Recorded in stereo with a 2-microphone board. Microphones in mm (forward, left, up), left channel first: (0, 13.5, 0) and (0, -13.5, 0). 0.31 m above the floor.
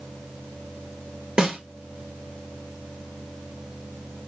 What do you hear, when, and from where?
1.4 s a snare drum: 30° right (ahead or behind), 2.0 m